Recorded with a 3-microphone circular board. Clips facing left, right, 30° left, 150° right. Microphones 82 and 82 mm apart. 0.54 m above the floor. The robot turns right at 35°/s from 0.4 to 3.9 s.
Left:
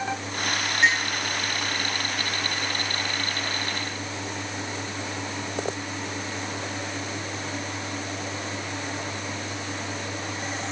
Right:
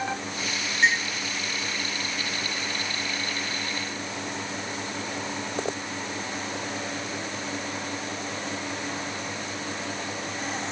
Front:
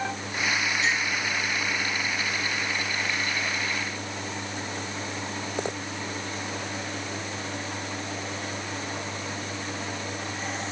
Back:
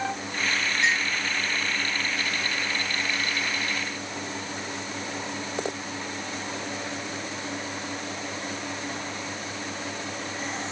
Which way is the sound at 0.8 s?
175° left.